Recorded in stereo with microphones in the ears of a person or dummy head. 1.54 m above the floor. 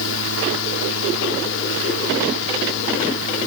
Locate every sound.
0.0 s a fan: 80° left